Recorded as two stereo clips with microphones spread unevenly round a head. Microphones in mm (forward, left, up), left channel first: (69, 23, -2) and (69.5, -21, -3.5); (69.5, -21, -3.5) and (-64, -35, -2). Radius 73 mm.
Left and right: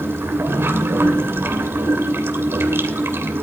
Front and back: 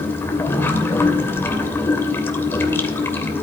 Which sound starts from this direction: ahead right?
Running water, at 0.0 s.